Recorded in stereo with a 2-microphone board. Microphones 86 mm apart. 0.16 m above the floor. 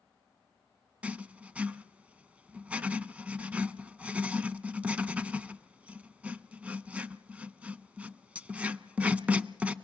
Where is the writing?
15° right (ahead or behind), 0.5 m.